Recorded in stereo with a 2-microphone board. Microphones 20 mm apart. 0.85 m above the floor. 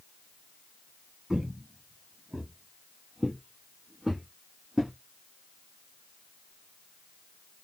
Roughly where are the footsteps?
Right.